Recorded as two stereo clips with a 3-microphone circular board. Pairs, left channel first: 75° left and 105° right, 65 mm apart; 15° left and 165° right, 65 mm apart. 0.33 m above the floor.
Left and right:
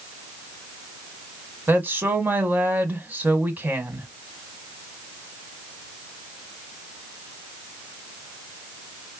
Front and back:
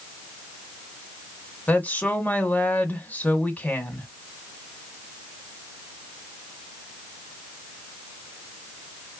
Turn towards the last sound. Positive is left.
turn(degrees=-45)